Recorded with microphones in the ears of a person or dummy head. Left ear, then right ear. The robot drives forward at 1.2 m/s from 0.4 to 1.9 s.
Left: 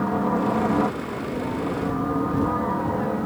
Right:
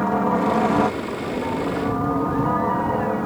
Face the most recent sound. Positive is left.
turn(degrees=-20)  # may be behind; listen again after turning